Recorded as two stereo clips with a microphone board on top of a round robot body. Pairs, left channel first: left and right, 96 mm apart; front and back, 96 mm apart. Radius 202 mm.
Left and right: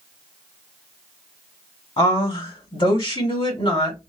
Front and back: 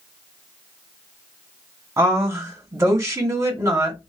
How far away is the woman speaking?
About 1.8 m.